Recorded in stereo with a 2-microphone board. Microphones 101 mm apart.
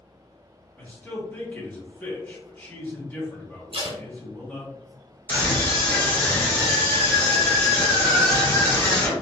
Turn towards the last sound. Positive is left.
turn(degrees=20)  # may be behind; listen again after turning